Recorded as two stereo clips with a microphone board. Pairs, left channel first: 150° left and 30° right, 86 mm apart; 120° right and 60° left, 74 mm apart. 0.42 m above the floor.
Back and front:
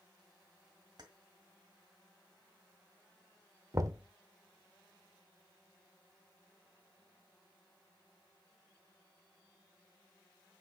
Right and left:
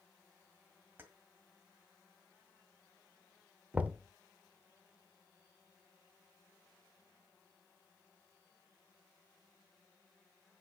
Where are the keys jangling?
Straight ahead, 1.8 m.